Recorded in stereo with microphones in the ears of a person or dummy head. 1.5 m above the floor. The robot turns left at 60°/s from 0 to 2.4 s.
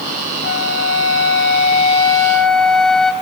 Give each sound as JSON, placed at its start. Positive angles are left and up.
{"t": 0.4, "sound": "a flute", "azimuth_deg": 115, "distance_m": 2.0}